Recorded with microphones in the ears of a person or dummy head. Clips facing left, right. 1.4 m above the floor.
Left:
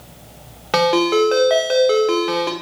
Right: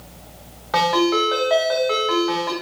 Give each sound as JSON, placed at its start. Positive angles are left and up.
{"t": 0.7, "sound": "a ringtone", "side_deg": 40, "distance_m": 0.6}